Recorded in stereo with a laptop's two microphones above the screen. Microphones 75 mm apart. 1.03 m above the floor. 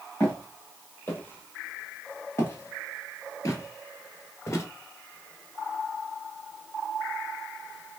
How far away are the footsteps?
About 2.5 m.